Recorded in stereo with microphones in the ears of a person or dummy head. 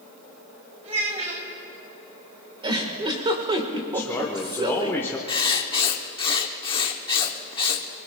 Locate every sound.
0.8 s a child speaking: 35° right (ahead or behind), 5.5 m
2.6 s a giggle: 25° right (ahead or behind), 1.6 m
3.9 s a man speaking: 15° left (ahead or behind), 1.2 m
5.3 s writing: 25° left (ahead or behind), 0.9 m